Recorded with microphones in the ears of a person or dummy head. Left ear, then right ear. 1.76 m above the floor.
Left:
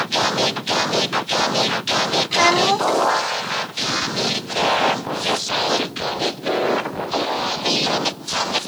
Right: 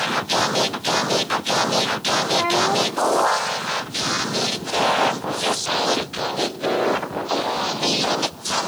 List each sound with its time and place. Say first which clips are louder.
2.3 s a child speaking: left 5 dB; 75° left (ahead or behind)